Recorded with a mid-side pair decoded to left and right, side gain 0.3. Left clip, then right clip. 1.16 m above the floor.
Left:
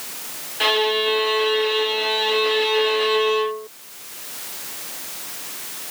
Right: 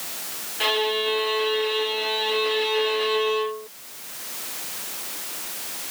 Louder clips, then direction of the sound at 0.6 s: Left 4 dB; 40° left.